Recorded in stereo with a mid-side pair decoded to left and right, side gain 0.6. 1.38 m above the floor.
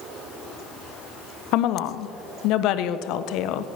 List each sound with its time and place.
1.5 s a woman speaking: 70° left, 0.7 m